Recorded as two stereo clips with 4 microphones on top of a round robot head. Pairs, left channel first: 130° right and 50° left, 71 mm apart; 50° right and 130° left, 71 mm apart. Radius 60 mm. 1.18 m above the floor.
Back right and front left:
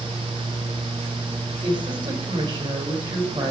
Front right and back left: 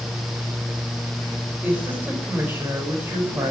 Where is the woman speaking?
65° left, 5.5 m; by 3.5 s 75° left, 5.5 m.